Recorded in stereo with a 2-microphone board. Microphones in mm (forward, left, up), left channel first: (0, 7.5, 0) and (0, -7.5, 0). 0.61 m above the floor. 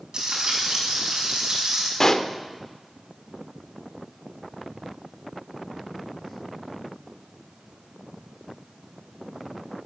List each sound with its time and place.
0.1 s frying: 55° right (ahead or behind), 5 m
2.0 s a pop: 30° left (ahead or behind), 0.7 m